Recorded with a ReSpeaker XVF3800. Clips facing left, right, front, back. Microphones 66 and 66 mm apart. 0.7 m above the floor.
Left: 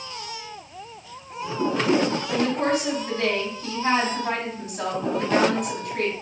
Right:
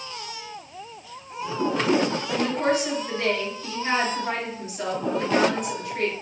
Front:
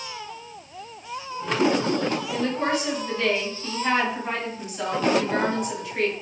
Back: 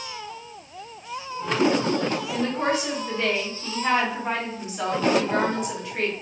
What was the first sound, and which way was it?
A woman speaking, 115° left.